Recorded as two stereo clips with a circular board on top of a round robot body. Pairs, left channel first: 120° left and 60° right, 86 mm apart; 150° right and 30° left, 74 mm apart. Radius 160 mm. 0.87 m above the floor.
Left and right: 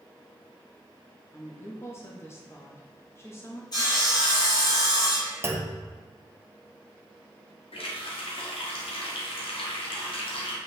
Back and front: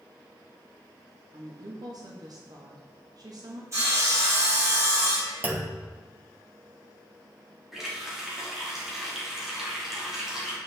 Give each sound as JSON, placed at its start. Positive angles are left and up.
{"t": 1.3, "sound": "a woman speaking", "azimuth_deg": 60, "distance_m": 1.2}
{"t": 3.7, "sound": "sawing", "azimuth_deg": 80, "distance_m": 2.5}
{"t": 5.4, "sound": "a clunk", "azimuth_deg": -20, "distance_m": 1.1}
{"t": 7.7, "sound": "a running tap", "azimuth_deg": 115, "distance_m": 1.4}